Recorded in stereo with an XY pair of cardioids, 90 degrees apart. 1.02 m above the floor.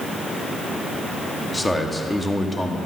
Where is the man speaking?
10° left, 1.5 m.